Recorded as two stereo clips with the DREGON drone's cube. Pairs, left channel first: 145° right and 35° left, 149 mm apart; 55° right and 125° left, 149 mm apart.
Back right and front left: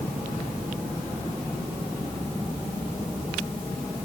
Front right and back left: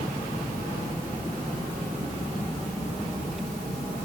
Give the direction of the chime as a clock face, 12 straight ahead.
I don't hear a chime.